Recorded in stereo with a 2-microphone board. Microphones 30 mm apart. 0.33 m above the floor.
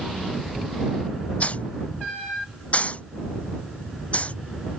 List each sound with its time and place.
1.4 s a hiss: 45° left (ahead or behind)